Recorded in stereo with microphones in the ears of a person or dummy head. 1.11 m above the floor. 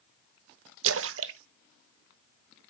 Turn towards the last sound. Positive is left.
turn(degrees=-65)  # may be behind; listen again after turning